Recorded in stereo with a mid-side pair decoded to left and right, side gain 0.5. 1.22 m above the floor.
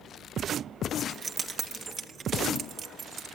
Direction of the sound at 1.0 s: 30° right.